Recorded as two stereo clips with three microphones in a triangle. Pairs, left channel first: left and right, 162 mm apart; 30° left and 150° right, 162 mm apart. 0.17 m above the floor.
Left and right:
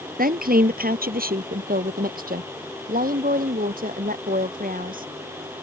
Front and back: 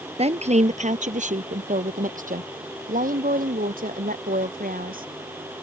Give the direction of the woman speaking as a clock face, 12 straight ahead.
3 o'clock.